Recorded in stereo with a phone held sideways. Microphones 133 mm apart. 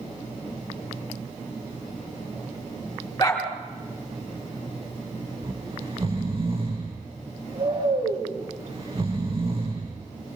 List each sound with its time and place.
3.2 s a dog barking: 30° left (ahead or behind), 6 m
5.4 s snoring: 45° right (ahead or behind), 7 m